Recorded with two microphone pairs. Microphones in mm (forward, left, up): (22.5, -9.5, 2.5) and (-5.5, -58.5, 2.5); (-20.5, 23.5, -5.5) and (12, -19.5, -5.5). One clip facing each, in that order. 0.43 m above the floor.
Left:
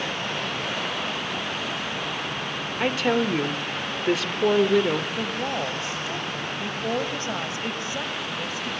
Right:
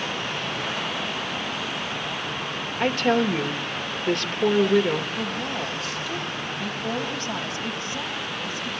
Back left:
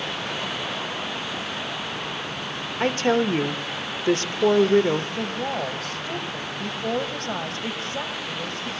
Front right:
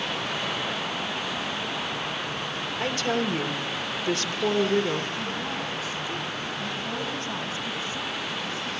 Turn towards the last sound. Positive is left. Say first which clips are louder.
# left 1 dB, back left 3 dB
turn(degrees=125)